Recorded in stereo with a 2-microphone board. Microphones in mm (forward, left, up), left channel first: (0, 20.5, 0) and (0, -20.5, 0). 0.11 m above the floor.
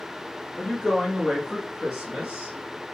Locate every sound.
0.6 s a woman speaking: 15° left (ahead or behind), 1.5 m; by 2.5 s 20° right (ahead or behind), 1.5 m